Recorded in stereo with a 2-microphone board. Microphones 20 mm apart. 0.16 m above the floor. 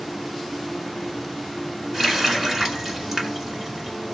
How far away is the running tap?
About 1.4 m.